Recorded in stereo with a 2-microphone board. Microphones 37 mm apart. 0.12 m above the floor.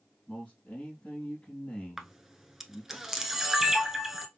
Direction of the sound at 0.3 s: 40° left (ahead or behind).